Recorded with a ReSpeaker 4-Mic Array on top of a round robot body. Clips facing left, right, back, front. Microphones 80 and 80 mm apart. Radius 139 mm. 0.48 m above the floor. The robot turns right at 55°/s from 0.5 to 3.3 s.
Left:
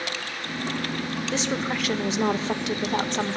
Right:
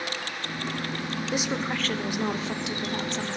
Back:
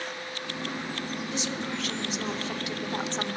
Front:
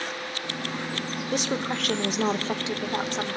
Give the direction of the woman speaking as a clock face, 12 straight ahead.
1 o'clock.